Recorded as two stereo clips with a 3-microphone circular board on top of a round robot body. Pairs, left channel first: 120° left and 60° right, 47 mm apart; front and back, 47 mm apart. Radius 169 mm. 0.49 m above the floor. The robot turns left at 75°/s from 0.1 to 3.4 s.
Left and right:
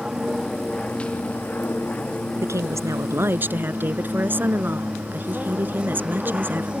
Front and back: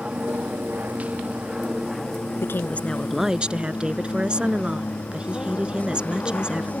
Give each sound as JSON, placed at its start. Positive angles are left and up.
{"t": 0.0, "sound": "an aircraft", "azimuth_deg": -130}
{"t": 2.4, "sound": "a woman speaking", "azimuth_deg": -35}